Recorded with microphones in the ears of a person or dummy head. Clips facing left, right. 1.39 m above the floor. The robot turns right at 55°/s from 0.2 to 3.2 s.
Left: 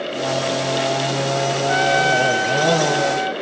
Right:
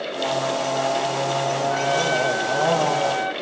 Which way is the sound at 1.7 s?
95° left.